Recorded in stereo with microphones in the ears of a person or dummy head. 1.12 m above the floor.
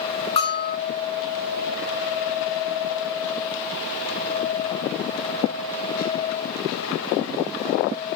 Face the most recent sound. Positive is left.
turn(degrees=30)  # may be behind; listen again after turning